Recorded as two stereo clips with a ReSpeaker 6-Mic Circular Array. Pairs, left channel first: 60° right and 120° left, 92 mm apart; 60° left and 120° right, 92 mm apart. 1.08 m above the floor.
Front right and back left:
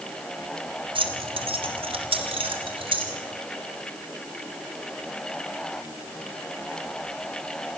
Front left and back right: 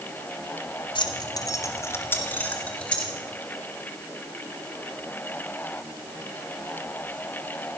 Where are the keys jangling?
95° left, 2 m; by 3.1 s 140° left, 4 m.